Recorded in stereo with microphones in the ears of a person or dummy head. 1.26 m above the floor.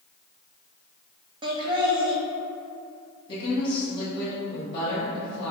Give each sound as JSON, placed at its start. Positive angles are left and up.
{"t": 1.4, "sound": "laughter", "side_deg": -25, "distance_m": 0.8}
{"t": 3.3, "sound": "a woman speaking", "side_deg": 30, "distance_m": 1.0}